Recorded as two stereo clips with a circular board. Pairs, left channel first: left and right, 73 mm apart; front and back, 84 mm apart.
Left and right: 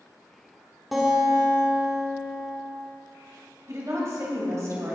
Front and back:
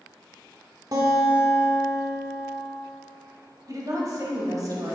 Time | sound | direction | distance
0.9 | a guitar | straight behind | 1.7 m
3.7 | a woman speaking | 135° right | 2.5 m